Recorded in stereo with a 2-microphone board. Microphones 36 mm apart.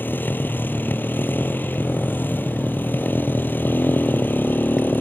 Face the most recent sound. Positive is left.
turn(degrees=65)  # may be behind; listen again after turning